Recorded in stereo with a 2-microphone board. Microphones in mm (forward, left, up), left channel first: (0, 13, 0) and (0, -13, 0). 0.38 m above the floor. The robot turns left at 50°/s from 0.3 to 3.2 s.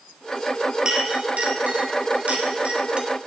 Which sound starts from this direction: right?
A clink, at 0.8 s.